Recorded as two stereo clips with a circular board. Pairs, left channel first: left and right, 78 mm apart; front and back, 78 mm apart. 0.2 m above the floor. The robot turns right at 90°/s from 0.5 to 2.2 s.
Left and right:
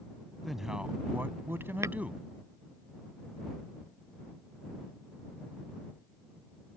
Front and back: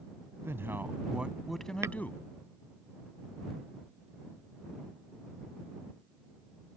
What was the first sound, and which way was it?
A man speaking, straight behind.